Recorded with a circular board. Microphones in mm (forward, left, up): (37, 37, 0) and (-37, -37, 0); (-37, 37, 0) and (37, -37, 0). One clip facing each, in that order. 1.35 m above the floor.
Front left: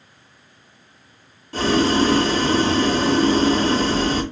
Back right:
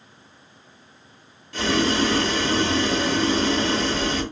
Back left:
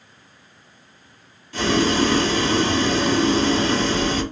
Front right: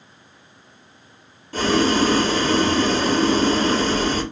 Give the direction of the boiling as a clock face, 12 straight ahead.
12 o'clock.